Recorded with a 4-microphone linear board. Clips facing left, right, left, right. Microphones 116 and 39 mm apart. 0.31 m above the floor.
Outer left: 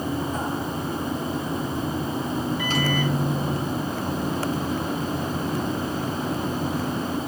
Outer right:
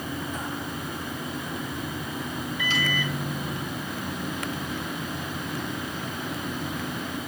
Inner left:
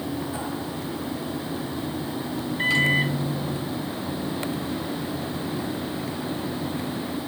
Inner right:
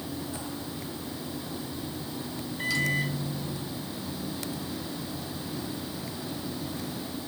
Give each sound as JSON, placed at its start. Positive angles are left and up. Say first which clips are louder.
{"t": 2.6, "sound": "a microwave", "louder": "outer left 5 dB, inner left 7 dB", "side_deg": 40, "distance_m": 0.9}